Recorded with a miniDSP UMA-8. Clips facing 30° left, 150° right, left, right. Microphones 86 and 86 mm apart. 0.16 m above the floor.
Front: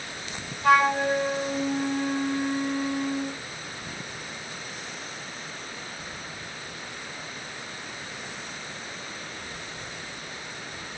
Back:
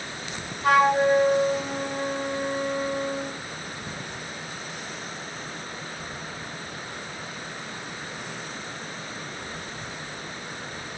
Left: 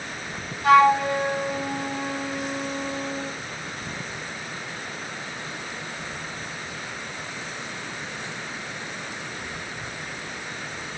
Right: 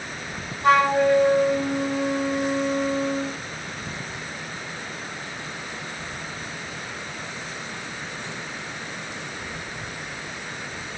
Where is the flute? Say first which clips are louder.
Back 2 dB, left 1 dB; 145° right, 2 m.